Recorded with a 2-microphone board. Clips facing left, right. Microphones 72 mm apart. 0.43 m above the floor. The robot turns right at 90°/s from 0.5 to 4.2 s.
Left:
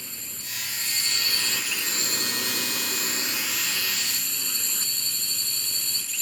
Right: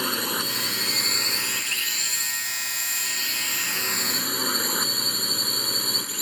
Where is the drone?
100° right; by 6.2 s 125° right.